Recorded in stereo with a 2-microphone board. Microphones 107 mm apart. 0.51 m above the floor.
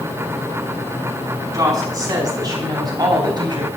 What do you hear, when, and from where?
1.5 s a woman speaking: 30° right (ahead or behind), 5 m; by 3.7 s 40° right (ahead or behind), 3.5 m